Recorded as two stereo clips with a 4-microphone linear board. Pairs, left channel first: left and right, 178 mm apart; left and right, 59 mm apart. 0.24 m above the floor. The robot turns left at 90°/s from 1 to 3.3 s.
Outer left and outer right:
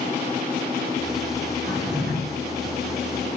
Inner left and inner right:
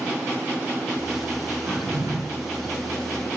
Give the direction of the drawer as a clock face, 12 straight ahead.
2 o'clock.